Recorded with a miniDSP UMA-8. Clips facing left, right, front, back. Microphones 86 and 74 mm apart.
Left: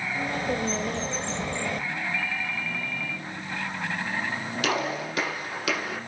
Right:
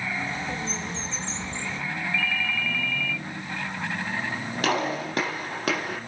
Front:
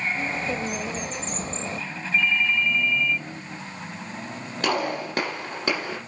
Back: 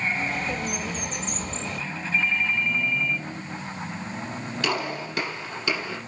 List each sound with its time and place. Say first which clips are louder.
0.1 s a bird: left 3 dB, front 1 dB; 55° left, 1.4 m
2.1 s a ringtone: right 3 dB, front 2 dB; 140° left, 1.0 m
4.6 s a gunshot: right 2 dB, front 4 dB; 45° right, 8 m